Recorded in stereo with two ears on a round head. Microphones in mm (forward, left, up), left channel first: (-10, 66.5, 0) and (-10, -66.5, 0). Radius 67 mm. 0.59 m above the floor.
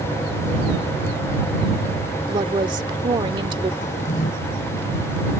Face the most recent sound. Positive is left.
turn(degrees=55)  # may be behind; listen again after turning